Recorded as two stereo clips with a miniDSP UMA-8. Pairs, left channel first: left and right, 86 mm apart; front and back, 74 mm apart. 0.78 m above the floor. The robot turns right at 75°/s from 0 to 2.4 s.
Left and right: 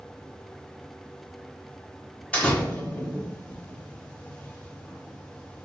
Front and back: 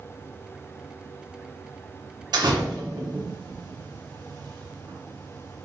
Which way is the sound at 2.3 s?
165° left.